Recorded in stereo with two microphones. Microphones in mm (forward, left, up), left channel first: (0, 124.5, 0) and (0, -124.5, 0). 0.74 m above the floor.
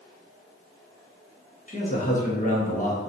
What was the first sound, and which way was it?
A man speaking, 30° left (ahead or behind).